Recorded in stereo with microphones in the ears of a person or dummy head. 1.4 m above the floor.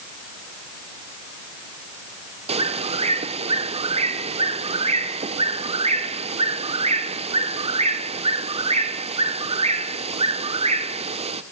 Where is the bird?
30° right (ahead or behind), 1.1 m.